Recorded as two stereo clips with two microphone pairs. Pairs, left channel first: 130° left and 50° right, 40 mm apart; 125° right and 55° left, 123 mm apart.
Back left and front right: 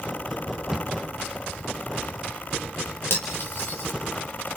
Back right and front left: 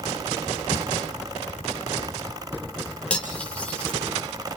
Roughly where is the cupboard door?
Behind right.